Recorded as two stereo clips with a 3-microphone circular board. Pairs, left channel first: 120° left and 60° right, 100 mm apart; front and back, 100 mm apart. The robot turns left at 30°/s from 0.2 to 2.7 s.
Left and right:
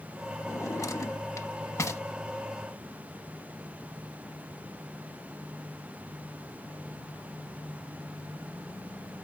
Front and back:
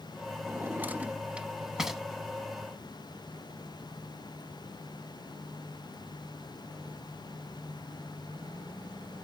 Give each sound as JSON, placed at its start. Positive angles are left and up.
{"t": 0.5, "sound": "a drawer", "azimuth_deg": 140, "distance_m": 0.9}